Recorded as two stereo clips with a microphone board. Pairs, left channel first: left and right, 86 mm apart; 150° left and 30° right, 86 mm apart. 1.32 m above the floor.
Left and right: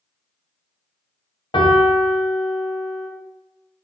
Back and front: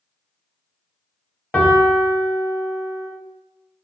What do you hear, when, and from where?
1.5 s a piano: 70° left, 0.8 m